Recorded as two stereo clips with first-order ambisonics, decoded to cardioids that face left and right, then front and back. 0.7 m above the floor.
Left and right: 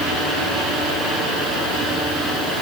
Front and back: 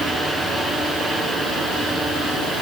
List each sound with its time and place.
Only background noise.